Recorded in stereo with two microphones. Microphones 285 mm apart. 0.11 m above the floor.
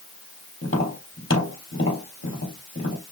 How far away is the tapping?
About 3.5 m.